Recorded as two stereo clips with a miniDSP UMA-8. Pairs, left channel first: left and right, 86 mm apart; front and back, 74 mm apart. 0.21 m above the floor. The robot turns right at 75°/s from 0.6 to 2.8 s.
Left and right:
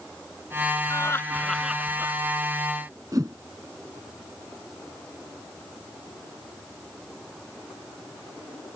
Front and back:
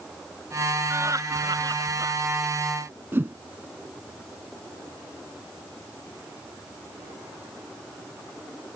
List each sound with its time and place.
0.9 s laughter: 130° left; by 2.1 s 140° right
3.1 s a whoosh: 125° right